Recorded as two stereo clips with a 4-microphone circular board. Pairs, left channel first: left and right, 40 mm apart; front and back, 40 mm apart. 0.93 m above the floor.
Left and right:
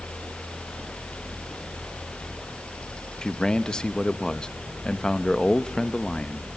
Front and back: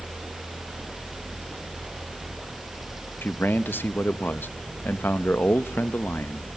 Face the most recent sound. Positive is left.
turn(degrees=25)